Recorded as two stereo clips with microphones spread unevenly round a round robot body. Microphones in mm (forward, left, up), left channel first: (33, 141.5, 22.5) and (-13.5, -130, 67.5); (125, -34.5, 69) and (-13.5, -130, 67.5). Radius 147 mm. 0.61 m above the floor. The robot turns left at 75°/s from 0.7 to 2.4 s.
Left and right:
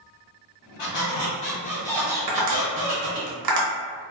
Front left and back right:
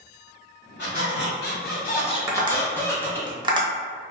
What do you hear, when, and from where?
0.8 s a squeak: 80° left, 0.9 m; by 3.3 s 40° right, 0.9 m
2.3 s tapping: 70° right, 0.8 m; by 3.7 s 80° right, 0.8 m